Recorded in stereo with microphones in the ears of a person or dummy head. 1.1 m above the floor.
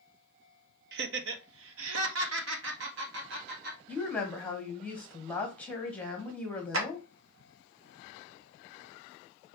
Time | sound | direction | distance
0.9 | laughter | 60° right (ahead or behind) | 0.9 m
3.9 | a woman speaking | 5° left (ahead or behind) | 1.2 m
6.7 | a clap | 70° right (ahead or behind) | 1.3 m